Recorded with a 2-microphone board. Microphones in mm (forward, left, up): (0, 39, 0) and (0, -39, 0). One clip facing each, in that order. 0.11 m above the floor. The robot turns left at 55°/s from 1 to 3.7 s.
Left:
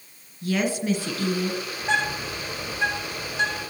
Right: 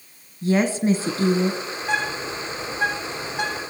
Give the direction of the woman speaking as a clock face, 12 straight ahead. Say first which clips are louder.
Right 5 dB; 3 o'clock.